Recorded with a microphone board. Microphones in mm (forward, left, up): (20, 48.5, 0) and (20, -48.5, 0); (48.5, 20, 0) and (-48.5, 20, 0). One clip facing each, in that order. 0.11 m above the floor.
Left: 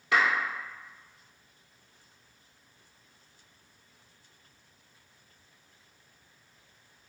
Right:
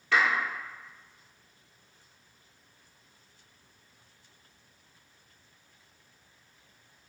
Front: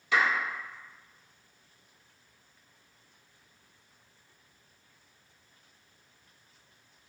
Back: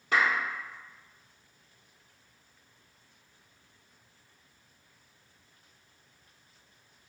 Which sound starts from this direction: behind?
A clap, at 0.1 s.